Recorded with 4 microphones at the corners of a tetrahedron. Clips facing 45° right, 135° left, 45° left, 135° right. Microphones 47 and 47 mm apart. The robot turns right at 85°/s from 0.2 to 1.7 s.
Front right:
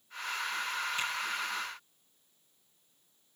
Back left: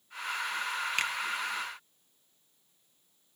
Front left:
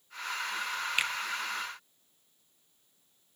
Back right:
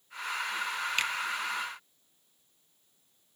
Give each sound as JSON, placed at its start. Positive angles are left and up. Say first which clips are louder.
{"t": 1.0, "sound": "a finger snap", "louder": "back left 6 dB, front left 1 dB", "azimuth_deg": 125, "distance_m": 1.1}